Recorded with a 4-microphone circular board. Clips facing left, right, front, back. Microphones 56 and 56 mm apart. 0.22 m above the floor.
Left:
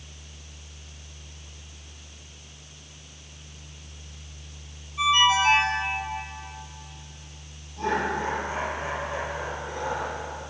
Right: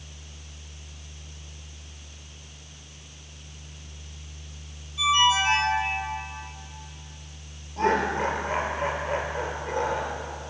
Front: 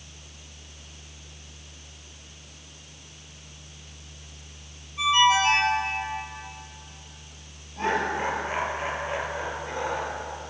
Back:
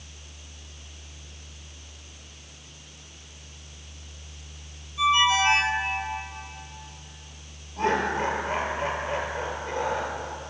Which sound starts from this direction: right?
Laughter, at 7.8 s.